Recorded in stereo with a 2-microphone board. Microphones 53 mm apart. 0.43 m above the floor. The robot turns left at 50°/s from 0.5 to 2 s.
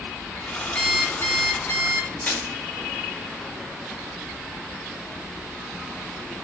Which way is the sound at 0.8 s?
150° left.